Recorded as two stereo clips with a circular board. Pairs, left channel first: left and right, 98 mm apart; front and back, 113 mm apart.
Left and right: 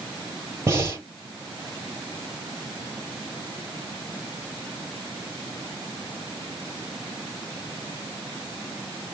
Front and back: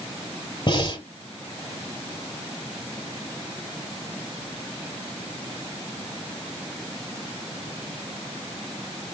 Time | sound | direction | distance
0.7 | breathing | 35° right | 2.5 m